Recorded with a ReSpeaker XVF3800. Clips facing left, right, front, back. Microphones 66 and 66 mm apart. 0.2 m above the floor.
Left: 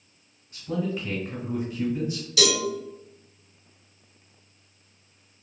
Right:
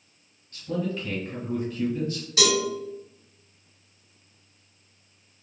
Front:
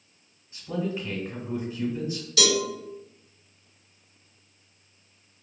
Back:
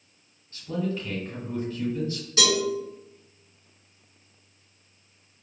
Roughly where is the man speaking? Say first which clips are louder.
Even, even; ahead left.